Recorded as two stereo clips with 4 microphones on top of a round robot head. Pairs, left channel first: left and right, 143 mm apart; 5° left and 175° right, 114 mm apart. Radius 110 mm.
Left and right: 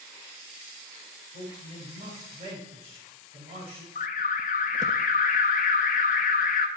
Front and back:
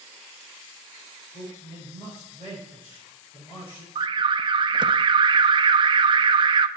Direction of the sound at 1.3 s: 55° right.